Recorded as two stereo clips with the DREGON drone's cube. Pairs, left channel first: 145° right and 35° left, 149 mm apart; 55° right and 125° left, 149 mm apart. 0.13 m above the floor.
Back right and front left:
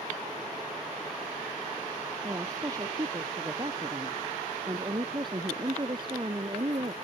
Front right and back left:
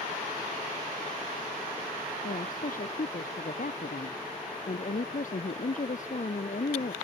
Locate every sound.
2.2 s a woman speaking: 30° right; by 6.9 s 20° right